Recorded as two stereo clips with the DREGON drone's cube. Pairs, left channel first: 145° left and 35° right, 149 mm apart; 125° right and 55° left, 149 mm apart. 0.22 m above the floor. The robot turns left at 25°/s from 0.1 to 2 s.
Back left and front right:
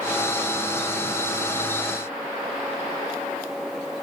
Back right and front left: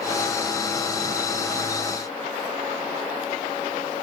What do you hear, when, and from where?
Only background noise.